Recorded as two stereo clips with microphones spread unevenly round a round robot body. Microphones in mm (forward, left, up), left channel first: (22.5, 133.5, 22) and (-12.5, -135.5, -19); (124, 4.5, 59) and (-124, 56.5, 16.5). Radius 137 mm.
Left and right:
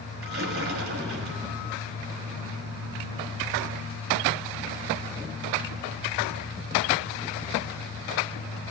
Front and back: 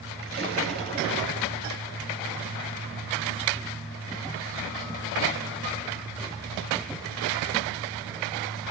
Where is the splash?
140° right, 5 m.